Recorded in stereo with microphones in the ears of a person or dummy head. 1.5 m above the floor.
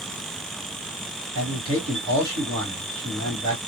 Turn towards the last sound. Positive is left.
turn(degrees=-80)